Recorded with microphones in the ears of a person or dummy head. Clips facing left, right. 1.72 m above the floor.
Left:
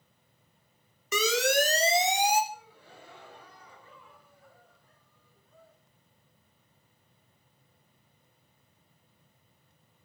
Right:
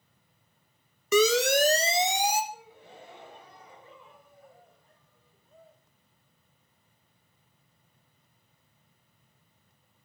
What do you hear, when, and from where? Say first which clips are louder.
1.1 s a siren: right 4 dB; 80° right, 3.5 m
2.5 s a gasp: right 1 dB; 20° right (ahead or behind), 1.8 m